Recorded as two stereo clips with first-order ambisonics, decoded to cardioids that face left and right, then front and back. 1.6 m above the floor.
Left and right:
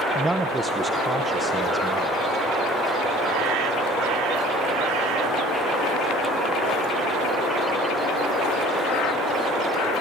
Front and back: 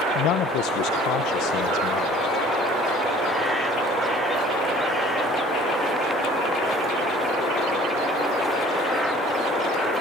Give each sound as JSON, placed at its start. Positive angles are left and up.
{"t": 0.1, "sound": "a man speaking", "azimuth_deg": -10, "distance_m": 0.8}